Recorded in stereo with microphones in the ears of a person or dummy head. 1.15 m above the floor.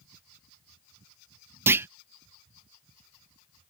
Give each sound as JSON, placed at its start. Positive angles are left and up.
{"t": 1.7, "sound": "a clunk", "side_deg": -10}